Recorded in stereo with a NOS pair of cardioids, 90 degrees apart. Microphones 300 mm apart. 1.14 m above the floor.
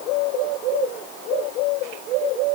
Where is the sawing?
No sawing in this recording.